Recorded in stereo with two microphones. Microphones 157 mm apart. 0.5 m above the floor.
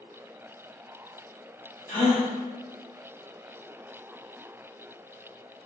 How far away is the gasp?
About 1.6 m.